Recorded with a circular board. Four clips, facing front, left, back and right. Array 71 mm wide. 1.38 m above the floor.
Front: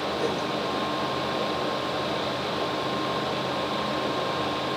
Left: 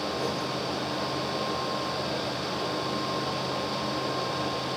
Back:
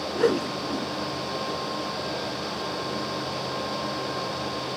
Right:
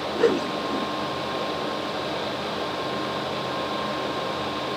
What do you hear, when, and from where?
0.1 s a whoosh: 120° right